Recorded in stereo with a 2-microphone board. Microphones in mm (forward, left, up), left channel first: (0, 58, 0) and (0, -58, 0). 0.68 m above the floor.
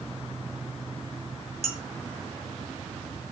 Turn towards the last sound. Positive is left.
turn(degrees=55)  # may be behind; listen again after turning